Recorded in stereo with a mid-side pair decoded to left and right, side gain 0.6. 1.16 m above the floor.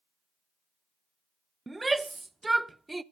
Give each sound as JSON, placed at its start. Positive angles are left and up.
{"t": 1.7, "sound": "a shout", "azimuth_deg": -15, "distance_m": 0.5}